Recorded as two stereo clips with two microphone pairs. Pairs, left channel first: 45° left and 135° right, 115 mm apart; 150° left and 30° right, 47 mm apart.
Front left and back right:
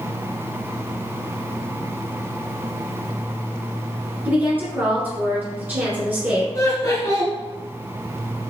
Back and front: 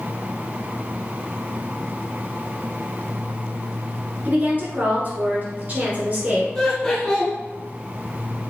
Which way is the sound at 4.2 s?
70° right.